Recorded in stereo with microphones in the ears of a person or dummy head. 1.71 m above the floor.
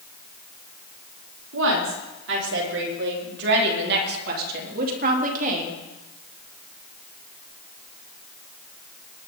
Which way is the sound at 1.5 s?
75° right (ahead or behind).